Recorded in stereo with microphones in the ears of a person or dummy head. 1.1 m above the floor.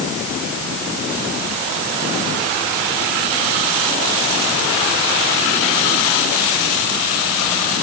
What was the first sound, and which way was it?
Only background noise.